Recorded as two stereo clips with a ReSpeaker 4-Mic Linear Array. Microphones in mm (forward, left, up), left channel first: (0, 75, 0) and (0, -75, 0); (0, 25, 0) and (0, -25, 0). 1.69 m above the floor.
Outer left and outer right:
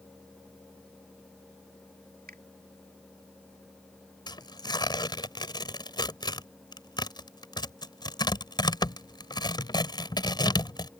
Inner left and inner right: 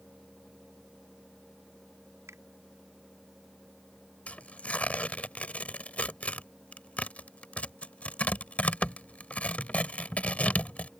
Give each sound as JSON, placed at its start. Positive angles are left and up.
{"t": 2.3, "sound": "a finger snap", "side_deg": -85}
{"t": 4.3, "sound": "tearing paper", "side_deg": 30}